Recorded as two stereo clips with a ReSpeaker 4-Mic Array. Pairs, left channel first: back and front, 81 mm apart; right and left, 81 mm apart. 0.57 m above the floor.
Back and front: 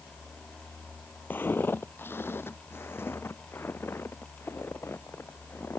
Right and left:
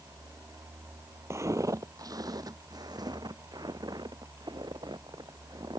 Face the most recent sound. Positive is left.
turn(degrees=120)